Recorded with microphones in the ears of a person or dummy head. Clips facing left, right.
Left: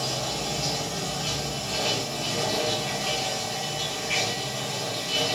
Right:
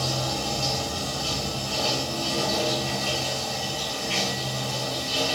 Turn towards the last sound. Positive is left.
turn(degrees=-15)  # may be behind; listen again after turning